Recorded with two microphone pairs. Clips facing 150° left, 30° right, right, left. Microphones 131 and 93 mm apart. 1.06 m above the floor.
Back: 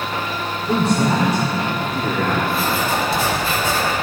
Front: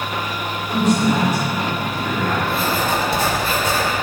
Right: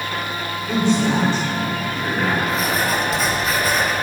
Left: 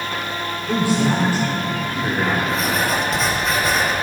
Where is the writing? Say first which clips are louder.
Even, even; straight ahead, 2.5 m.